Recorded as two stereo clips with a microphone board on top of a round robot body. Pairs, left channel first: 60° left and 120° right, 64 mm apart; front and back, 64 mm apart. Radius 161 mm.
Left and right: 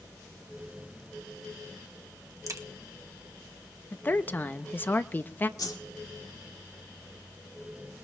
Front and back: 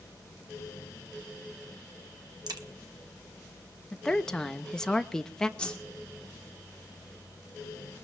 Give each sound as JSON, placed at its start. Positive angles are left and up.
{"t": 2.5, "sound": "a crack", "azimuth_deg": -165, "distance_m": 1.3}
{"t": 3.9, "sound": "a woman speaking", "azimuth_deg": 70, "distance_m": 0.9}
{"t": 5.6, "sound": "a whoosh", "azimuth_deg": 75, "distance_m": 2.0}